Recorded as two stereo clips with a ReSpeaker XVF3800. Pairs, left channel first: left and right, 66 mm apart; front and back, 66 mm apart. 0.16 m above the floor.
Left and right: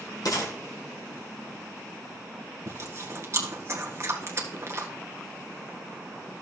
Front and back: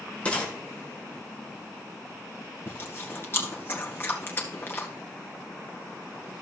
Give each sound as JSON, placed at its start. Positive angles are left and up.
{"t": 0.2, "sound": "a gunshot", "azimuth_deg": 70, "distance_m": 2.5}
{"t": 2.7, "sound": "chewing", "azimuth_deg": -50, "distance_m": 1.8}